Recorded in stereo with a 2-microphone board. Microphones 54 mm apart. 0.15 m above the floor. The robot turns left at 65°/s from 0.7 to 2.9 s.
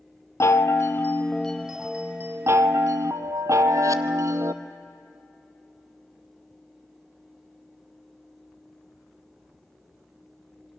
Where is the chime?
60° left, 0.7 m; by 4.5 s 85° right, 0.7 m.